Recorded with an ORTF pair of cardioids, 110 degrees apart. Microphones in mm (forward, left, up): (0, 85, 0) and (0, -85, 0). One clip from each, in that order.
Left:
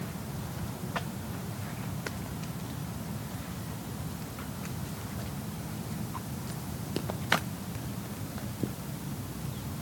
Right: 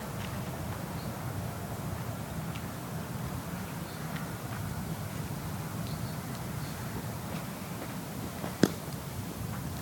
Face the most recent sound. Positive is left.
No sound to turn to.